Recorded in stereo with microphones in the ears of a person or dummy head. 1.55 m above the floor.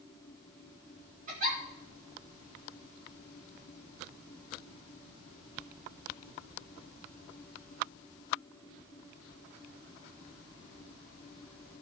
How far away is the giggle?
About 3 m.